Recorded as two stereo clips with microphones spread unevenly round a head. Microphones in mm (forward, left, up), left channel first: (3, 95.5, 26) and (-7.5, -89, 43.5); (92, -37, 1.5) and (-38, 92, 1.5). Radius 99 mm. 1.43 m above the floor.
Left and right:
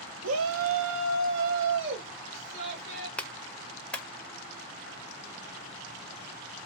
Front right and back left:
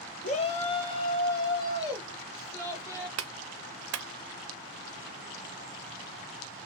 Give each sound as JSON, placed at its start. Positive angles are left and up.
{"t": 0.2, "sound": "a shout", "azimuth_deg": -100, "distance_m": 0.8}
{"t": 3.2, "sound": "a clap", "azimuth_deg": 170, "distance_m": 0.5}